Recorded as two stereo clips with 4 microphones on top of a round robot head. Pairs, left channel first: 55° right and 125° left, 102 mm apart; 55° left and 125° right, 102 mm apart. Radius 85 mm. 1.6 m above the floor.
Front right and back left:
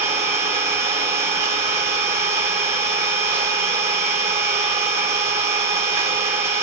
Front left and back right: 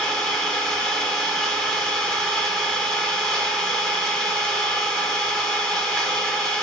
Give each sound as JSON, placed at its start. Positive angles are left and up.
{"t": 0.0, "sound": "an engine running", "azimuth_deg": 140, "distance_m": 1.2}